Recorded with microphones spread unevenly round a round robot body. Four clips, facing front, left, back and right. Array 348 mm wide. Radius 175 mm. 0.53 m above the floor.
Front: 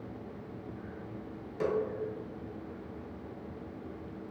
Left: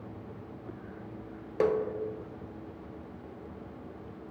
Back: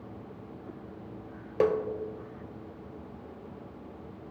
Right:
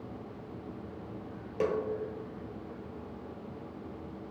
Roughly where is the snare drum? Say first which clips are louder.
Left 4 dB, back 5 dB; behind left.